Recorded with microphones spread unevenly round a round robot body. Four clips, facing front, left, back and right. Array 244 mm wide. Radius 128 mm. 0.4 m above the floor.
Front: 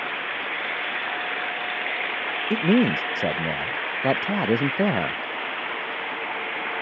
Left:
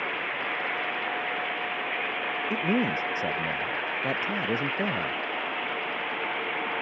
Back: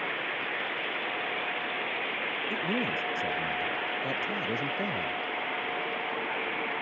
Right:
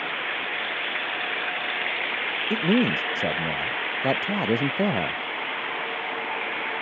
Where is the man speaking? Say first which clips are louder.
Right 5 dB, front 13 dB; 20° right; by 5.2 s 25° right.